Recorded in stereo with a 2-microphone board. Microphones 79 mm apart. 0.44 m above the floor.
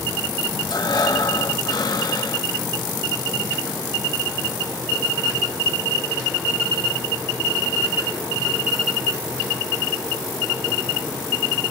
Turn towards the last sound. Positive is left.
turn(degrees=55)  # may be behind; listen again after turning